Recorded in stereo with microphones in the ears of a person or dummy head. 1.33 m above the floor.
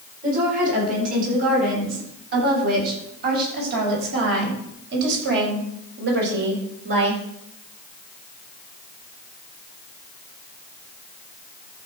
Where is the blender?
I don't hear a blender.